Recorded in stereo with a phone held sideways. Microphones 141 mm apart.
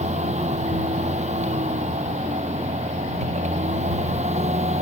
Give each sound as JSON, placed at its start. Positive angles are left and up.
{"t": 0.0, "sound": "a machine running", "side_deg": -55}